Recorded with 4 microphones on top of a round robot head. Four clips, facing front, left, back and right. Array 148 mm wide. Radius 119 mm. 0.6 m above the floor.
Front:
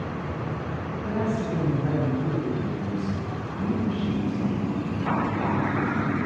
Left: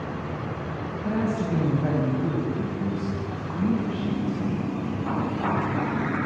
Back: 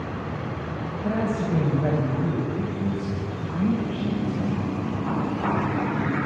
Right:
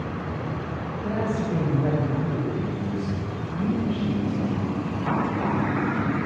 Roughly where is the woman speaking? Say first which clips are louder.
Even, back 2 dB; behind right.